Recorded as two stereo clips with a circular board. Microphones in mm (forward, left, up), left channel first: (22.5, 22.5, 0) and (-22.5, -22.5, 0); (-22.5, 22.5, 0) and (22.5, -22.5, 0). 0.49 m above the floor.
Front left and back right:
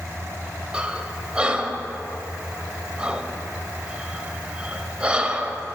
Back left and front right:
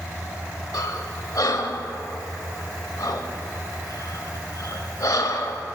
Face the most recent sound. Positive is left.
turn(degrees=150)